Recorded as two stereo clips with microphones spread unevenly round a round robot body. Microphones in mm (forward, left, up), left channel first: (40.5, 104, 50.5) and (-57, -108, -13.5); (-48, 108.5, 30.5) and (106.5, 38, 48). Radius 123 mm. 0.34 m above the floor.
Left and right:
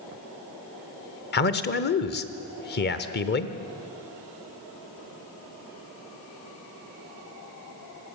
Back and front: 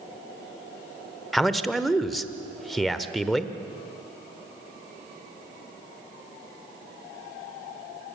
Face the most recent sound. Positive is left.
turn(degrees=80)